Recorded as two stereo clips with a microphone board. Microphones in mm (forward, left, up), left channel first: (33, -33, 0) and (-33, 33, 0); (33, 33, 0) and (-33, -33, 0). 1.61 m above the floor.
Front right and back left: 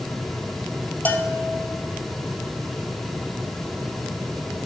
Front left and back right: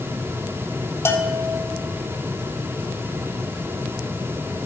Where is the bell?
10° left, 1.4 m.